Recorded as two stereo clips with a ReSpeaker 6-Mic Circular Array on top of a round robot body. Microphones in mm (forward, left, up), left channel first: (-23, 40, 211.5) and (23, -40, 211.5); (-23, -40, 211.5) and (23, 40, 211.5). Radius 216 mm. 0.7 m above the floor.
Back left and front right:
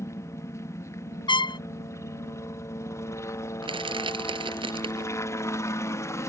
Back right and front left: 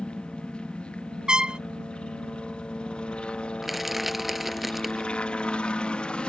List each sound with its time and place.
0.0 s a helicopter: 165° left
1.3 s a trumpet: 140° left
3.6 s crushing: 30° right